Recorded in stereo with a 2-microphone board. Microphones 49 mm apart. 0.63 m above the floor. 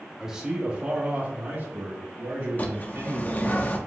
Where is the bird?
35° left (ahead or behind), 0.6 m.